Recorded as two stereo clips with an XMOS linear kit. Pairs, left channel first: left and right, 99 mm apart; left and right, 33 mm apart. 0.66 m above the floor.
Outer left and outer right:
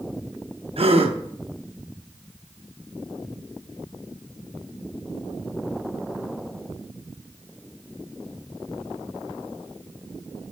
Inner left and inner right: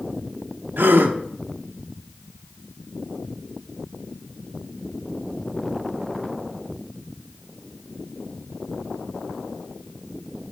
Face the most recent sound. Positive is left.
turn(degrees=-70)  # may be behind; listen again after turning